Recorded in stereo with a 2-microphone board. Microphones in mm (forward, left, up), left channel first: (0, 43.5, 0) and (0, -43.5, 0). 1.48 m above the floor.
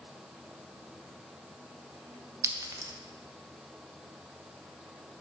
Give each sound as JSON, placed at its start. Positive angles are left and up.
{"t": 2.4, "sound": "a clink", "side_deg": -30, "distance_m": 0.6}